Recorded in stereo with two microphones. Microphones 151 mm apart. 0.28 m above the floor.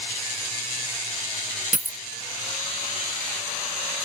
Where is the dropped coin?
60° right (ahead or behind).